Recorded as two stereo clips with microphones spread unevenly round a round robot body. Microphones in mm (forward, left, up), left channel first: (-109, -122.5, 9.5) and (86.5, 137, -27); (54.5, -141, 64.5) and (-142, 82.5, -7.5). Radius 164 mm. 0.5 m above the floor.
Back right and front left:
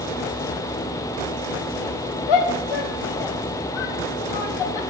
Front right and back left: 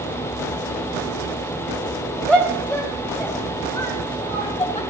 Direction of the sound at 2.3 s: 140° right.